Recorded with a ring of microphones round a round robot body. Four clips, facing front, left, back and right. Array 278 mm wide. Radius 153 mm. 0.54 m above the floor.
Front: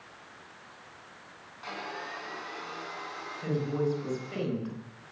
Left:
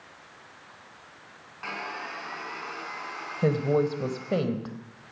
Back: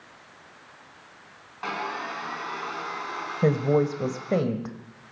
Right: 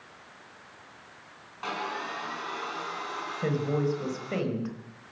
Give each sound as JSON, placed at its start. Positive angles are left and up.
{"t": 1.6, "sound": "sawing", "azimuth_deg": -165, "distance_m": 4.5}
{"t": 3.4, "sound": "a woman speaking", "azimuth_deg": 160, "distance_m": 3.5}